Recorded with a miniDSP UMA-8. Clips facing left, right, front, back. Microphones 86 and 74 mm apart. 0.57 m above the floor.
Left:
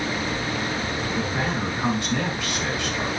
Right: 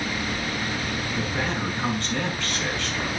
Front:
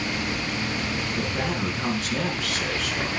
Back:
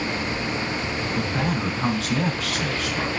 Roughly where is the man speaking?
Behind.